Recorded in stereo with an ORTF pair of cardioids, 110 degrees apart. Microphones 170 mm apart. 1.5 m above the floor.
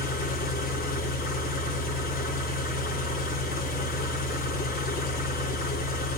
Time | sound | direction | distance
0.0 | an engine running | 65° left | 2.0 m